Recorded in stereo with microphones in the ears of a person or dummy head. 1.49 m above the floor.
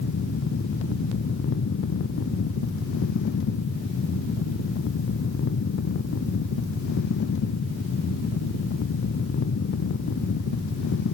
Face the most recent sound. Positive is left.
No sound to turn to.